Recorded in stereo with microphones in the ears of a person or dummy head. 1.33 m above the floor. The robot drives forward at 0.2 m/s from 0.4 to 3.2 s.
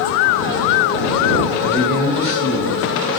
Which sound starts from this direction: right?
A man speaking, at 1.6 s.